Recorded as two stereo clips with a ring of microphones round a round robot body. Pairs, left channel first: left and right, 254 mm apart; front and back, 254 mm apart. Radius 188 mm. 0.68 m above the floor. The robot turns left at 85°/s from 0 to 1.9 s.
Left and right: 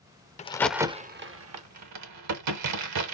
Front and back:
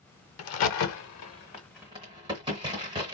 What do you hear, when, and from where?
0.4 s a crack: 25° left, 0.6 m; by 3.1 s 100° right, 0.6 m